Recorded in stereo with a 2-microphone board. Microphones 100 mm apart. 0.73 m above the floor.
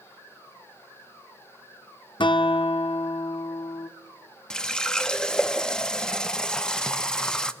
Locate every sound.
2.2 s a guitar: 50° left (ahead or behind), 0.5 m
4.5 s a running tap: 10° left (ahead or behind), 0.5 m